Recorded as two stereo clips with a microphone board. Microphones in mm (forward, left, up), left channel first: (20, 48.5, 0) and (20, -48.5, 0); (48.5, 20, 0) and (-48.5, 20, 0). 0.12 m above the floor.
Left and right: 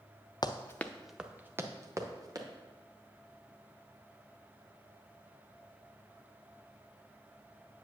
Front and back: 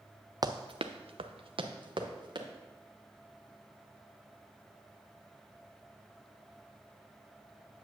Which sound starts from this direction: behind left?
Running footsteps, at 0.4 s.